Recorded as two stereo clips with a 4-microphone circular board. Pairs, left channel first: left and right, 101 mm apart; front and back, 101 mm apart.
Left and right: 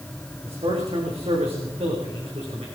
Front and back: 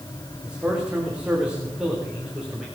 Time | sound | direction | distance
0.5 | a man speaking | 100° right | 9 m